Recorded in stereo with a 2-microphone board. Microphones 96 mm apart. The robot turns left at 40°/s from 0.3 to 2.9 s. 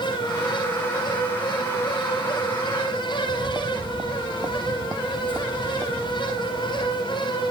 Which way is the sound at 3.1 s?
50° right (ahead or behind).